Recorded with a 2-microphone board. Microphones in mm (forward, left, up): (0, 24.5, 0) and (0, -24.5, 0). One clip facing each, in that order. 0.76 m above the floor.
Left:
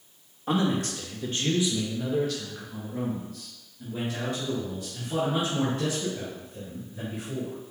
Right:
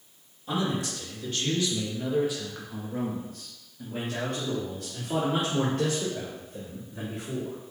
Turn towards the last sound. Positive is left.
turn(degrees=-75)  # may be behind; listen again after turning